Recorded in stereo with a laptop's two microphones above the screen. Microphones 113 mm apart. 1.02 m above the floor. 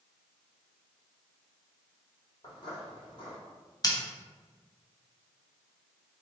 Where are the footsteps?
40° left (ahead or behind), 1.6 m.